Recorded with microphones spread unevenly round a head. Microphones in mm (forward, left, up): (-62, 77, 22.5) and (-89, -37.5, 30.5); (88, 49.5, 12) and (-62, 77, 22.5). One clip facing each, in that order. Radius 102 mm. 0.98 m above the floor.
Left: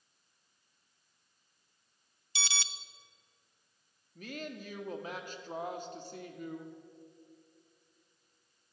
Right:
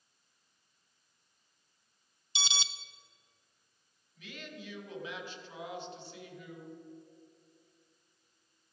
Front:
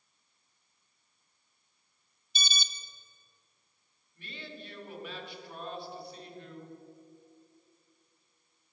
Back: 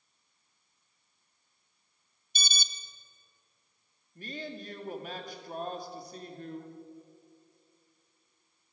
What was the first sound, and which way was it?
An alarm, 170° right.